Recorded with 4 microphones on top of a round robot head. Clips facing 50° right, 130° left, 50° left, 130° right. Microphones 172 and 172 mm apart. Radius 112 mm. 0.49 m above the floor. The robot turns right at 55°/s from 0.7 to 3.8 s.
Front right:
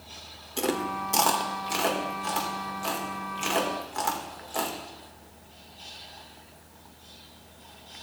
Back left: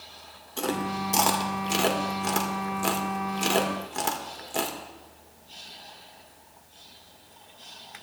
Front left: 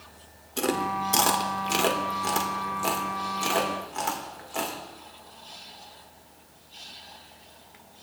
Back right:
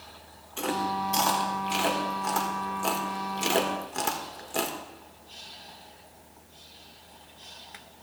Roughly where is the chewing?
Ahead.